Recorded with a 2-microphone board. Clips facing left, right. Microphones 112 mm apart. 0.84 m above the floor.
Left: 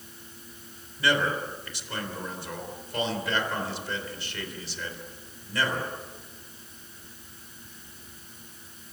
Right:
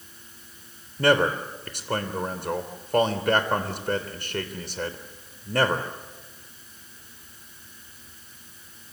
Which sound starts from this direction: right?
A man speaking, at 1.0 s.